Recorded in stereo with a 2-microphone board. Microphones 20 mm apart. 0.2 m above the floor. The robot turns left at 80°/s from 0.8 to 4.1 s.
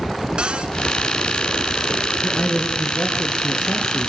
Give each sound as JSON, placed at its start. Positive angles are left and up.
{"t": 0.4, "sound": "a cupboard door", "side_deg": -55, "distance_m": 1.6}
{"t": 2.2, "sound": "a man speaking", "azimuth_deg": 65, "distance_m": 3.0}